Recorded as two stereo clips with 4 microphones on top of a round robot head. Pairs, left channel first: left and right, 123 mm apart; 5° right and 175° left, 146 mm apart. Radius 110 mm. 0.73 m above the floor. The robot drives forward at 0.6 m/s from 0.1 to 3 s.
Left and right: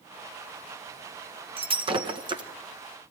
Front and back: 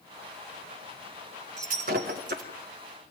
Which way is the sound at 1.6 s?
130° right.